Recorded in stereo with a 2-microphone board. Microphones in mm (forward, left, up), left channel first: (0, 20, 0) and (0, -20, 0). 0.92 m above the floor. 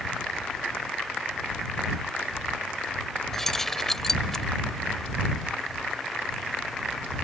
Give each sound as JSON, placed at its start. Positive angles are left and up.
{"t": 3.3, "sound": "keys jangling", "side_deg": 10}